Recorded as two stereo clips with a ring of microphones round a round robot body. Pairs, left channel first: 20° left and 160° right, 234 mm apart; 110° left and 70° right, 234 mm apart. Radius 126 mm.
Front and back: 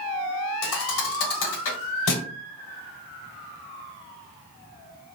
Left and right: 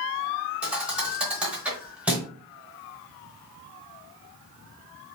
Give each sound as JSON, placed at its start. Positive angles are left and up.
{"t": 0.6, "sound": "a thud", "azimuth_deg": 20, "distance_m": 1.1}